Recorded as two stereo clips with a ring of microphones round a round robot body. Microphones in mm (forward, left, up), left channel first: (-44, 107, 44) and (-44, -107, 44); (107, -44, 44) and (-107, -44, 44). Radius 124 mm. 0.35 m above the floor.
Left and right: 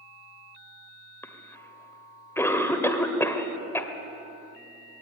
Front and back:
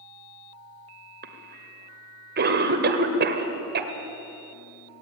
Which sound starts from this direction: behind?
A cough, at 1.2 s.